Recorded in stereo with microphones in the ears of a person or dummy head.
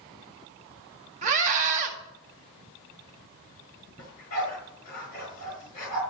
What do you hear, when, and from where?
1.2 s a scream: 40° right (ahead or behind), 2 m
4.0 s a dog barking: 50° left (ahead or behind), 5.5 m